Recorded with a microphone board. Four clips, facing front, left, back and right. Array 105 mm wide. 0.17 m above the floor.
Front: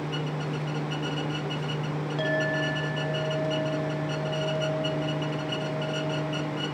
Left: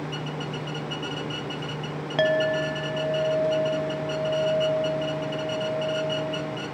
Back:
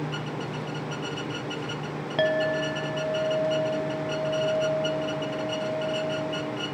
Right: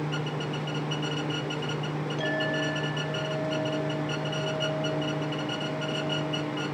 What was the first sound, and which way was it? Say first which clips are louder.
A clink: left 9 dB, back 4 dB; 120° left.